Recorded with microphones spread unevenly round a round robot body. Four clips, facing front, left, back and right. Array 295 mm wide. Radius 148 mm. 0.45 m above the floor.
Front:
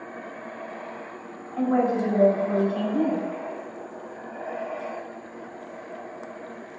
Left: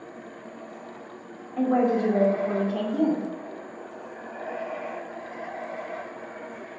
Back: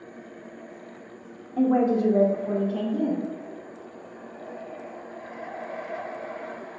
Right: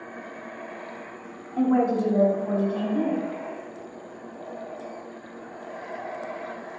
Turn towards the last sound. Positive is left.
turn(degrees=130)